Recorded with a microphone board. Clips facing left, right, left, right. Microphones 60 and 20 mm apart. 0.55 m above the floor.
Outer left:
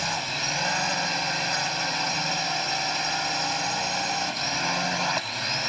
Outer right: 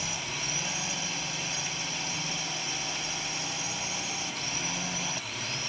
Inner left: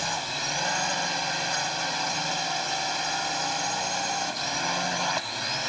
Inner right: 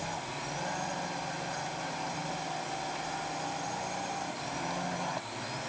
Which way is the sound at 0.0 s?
65° left (ahead or behind).